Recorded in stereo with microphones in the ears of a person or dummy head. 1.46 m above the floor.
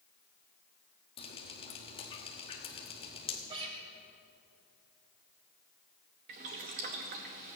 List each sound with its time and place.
1.2 s dripping: 30° left (ahead or behind), 1.1 m
3.5 s a guitar: 40° right (ahead or behind), 2 m
6.3 s boiling: 45° right (ahead or behind), 1.0 m